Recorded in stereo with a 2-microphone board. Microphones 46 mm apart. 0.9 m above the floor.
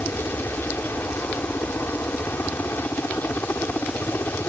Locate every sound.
0.0 s a helicopter: 60° left (ahead or behind)